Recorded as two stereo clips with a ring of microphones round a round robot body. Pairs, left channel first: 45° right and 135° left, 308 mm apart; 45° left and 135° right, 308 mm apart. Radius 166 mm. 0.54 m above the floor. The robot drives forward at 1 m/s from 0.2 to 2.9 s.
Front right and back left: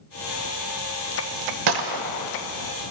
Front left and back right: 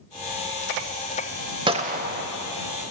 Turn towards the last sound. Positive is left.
turn(degrees=170)